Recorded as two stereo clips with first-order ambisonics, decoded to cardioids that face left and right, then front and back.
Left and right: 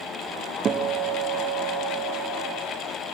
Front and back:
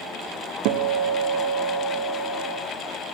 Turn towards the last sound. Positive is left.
turn(degrees=-155)